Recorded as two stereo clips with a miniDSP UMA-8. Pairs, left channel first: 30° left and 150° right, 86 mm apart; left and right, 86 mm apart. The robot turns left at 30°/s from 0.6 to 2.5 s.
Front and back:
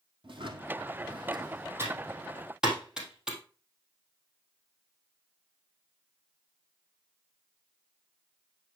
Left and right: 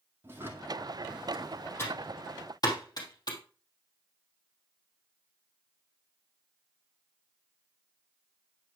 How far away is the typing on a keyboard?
About 3.5 m.